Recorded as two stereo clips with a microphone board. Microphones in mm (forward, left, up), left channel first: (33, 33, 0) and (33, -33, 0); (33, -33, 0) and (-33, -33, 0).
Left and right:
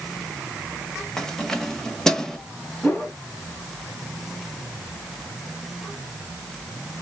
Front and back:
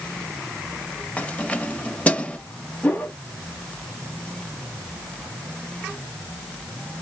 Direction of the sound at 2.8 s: 30° left.